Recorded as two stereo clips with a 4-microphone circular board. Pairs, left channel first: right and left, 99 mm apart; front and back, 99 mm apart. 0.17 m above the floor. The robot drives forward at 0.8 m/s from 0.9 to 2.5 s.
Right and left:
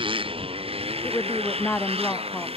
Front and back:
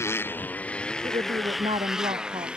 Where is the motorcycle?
60° left; by 2.6 s 100° left.